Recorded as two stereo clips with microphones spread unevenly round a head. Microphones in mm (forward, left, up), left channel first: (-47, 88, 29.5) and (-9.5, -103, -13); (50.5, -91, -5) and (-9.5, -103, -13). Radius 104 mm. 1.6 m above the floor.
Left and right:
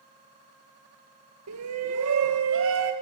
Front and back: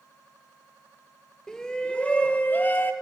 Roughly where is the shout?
Right.